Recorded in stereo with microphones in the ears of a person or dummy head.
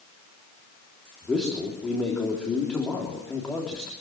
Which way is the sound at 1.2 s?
5° left (ahead or behind).